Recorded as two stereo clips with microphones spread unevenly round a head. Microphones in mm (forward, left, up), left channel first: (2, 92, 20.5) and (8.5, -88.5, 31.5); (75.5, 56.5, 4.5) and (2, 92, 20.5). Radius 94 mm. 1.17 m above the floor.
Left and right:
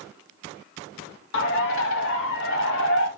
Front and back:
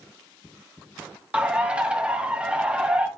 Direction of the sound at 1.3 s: 75° left.